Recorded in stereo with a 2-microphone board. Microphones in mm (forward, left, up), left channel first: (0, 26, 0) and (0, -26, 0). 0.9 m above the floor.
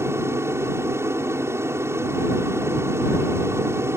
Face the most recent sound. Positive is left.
turn(degrees=-60)  # may be behind; listen again after turning